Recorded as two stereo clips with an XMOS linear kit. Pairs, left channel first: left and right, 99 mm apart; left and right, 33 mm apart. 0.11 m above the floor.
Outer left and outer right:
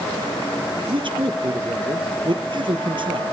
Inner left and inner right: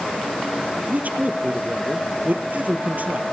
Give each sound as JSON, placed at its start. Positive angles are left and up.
{"t": 0.9, "sound": "a man speaking", "side_deg": -55, "distance_m": 2.5}